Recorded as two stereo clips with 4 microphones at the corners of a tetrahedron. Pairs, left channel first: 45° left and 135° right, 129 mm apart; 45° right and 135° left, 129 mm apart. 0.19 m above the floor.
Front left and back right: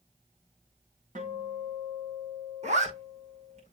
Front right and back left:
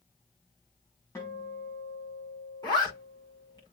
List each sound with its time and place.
1.1 s a guitar: 115° right, 4.5 m
2.6 s a zipper: 105° right, 5.5 m